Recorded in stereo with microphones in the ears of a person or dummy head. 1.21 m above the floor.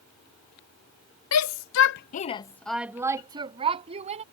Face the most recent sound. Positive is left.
turn(degrees=-35)  # may be behind; listen again after turning